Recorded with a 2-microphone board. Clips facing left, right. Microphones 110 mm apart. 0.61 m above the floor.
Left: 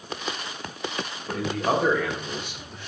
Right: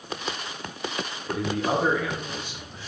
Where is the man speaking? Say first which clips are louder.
Left 1 dB; 55° left (ahead or behind), 3.5 m; by 2.9 s 60° left (ahead or behind), 1.7 m.